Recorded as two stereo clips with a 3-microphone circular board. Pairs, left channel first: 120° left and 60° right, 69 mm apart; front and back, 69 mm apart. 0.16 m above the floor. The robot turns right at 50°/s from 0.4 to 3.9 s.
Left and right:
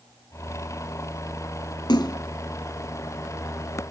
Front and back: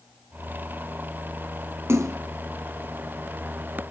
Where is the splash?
130° left, 1.4 m; by 2.2 s 145° left, 1.4 m.